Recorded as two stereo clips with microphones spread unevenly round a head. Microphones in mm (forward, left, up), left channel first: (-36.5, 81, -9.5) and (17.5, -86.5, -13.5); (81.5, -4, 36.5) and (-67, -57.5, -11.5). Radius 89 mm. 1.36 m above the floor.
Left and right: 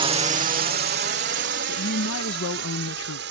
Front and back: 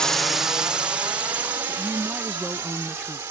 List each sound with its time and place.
0.0 s a drone: 95° right; by 3.3 s 90° right
1.7 s a woman speaking: 110° left